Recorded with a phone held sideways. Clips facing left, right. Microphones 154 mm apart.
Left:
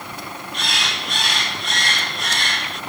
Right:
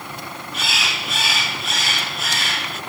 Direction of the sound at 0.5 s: 5° right (ahead or behind).